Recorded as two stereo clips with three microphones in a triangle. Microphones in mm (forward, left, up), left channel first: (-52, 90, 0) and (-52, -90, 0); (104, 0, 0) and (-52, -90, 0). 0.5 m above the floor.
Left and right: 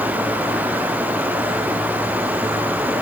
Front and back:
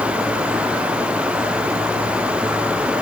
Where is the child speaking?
No child speaking in this recording.